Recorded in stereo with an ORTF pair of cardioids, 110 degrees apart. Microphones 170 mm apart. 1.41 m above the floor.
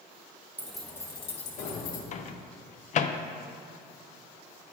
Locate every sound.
0.6 s keys jangling: 10° right, 1.1 m; by 2.0 s 65° left, 1.6 m
2.1 s a microwave: 45° left, 0.5 m